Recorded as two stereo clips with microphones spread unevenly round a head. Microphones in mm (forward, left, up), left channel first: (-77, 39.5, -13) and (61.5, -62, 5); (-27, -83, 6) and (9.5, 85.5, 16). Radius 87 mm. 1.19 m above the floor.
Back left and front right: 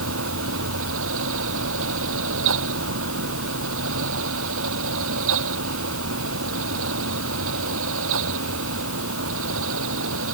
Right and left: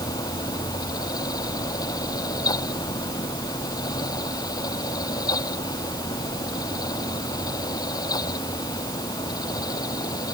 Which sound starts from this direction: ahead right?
A fan, at 0.0 s.